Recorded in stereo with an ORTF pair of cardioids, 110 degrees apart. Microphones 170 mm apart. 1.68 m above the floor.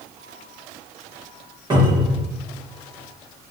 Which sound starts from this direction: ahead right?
A cupboard door, at 1.7 s.